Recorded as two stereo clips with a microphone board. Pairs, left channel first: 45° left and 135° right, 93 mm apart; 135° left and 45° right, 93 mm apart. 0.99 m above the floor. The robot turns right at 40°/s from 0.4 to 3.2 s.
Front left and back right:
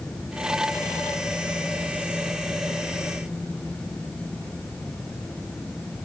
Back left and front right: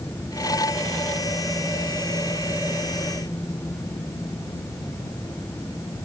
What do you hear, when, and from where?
Only background noise.